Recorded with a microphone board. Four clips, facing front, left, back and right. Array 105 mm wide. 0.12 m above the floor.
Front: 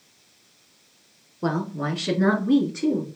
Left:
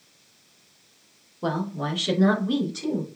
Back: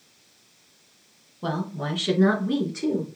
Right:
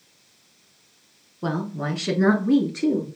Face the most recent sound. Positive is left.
turn(degrees=-95)